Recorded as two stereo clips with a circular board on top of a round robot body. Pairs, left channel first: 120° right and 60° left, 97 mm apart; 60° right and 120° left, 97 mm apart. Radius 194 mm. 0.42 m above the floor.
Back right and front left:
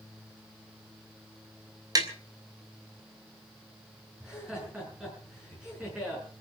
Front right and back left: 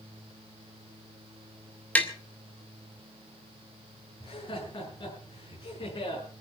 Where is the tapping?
15° left, 3 m.